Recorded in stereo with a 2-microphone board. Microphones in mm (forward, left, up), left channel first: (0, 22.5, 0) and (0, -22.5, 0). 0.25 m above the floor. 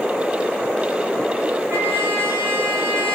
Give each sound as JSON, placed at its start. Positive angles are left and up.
{"t": 1.7, "sound": "a trumpet", "side_deg": -60, "distance_m": 6.0}